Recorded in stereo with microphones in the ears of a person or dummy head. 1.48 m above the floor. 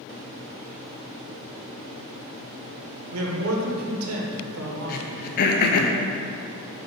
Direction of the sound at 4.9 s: 50° left (ahead or behind).